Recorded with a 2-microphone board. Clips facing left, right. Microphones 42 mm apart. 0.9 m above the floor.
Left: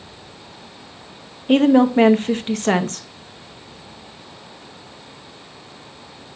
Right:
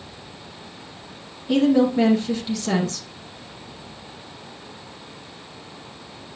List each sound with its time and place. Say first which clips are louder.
1.5 s a woman speaking: left 4 dB; 45° left (ahead or behind), 0.7 m